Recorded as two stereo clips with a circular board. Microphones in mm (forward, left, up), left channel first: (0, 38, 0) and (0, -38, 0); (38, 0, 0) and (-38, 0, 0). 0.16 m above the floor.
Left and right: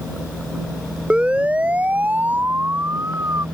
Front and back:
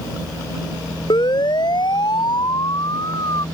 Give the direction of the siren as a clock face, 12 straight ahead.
12 o'clock.